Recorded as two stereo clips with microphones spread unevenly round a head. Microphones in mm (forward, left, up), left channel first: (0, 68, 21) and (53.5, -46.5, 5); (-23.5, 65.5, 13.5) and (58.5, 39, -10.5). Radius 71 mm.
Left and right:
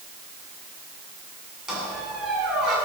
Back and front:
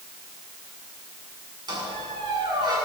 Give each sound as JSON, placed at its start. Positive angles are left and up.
{"t": 1.7, "sound": "a squeak", "azimuth_deg": 20, "distance_m": 8.0}